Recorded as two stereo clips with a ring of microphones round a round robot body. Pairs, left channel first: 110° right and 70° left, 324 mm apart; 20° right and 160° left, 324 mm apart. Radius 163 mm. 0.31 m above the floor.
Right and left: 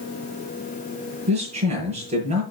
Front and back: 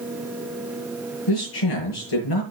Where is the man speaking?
5° right, 6.5 m.